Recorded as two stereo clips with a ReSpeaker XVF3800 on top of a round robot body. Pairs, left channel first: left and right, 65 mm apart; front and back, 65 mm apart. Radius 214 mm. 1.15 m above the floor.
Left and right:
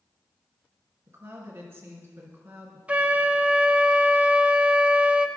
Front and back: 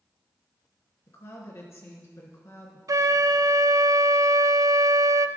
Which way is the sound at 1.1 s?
35° right.